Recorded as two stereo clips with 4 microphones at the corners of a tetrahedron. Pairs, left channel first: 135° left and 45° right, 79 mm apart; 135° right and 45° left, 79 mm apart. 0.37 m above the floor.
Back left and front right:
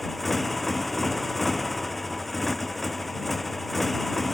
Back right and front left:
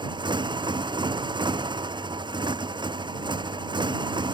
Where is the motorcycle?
45° left.